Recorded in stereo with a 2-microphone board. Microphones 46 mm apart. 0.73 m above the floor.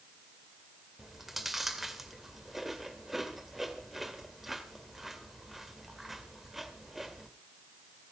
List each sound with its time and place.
1.0 s chewing: 5° right (ahead or behind), 2 m